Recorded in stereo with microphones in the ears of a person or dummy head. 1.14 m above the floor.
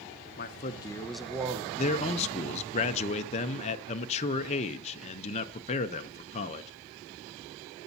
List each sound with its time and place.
0.4 s a man speaking: 45° left (ahead or behind), 0.8 m; by 1.7 s 25° right (ahead or behind), 0.9 m
1.8 s a man speaking: 30° left (ahead or behind), 0.6 m